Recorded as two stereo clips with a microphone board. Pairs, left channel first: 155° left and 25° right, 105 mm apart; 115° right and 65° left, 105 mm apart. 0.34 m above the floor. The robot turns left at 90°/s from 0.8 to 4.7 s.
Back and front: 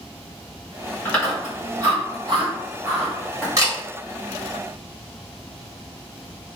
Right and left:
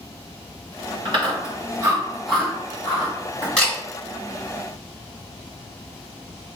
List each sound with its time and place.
1.1 s chewing: 95° left, 1.6 m; by 3.5 s 120° right, 1.6 m
3.6 s a camera shutter: 40° right, 1.7 m; by 3.7 s 55° right, 1.7 m